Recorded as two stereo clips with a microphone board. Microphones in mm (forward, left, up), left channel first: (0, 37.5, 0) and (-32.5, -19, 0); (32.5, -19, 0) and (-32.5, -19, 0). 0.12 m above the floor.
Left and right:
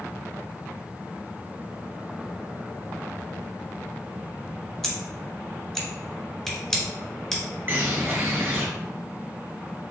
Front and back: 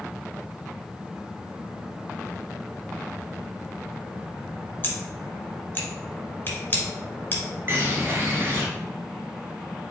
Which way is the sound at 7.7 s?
150° right.